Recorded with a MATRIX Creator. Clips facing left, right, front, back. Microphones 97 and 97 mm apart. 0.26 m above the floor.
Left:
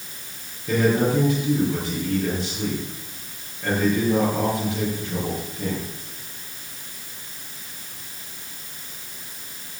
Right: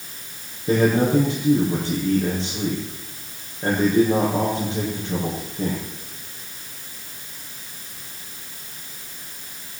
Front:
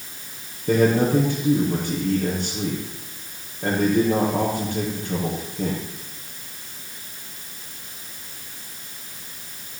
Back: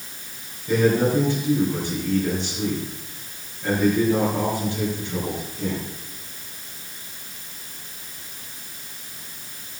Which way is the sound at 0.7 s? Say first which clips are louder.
Right 2 dB, front 1 dB; 30° right.